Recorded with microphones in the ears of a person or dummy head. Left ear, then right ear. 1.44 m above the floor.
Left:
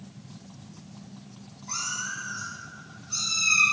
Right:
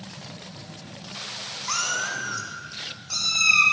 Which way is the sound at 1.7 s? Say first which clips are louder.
Right 5 dB; 60° right (ahead or behind).